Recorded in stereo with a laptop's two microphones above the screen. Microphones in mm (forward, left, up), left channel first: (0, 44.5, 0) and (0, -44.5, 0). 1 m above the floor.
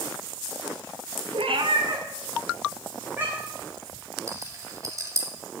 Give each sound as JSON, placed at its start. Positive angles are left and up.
{"t": 1.3, "sound": "a cat meowing", "side_deg": -75, "distance_m": 0.5}
{"t": 4.3, "sound": "a rattle", "side_deg": -35, "distance_m": 1.6}